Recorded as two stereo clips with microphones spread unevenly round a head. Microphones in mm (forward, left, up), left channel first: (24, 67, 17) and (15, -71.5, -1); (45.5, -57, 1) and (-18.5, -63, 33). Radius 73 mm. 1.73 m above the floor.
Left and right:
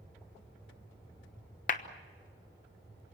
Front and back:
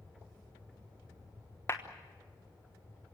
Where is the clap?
95° left, 1.1 m.